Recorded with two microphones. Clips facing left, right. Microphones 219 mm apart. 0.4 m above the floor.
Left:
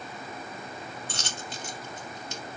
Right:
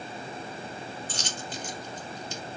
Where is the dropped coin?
70° left (ahead or behind), 1.1 m.